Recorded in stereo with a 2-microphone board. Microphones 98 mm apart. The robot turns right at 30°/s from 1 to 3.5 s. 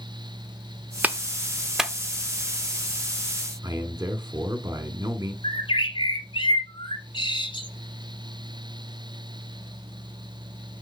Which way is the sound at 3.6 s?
30° right (ahead or behind).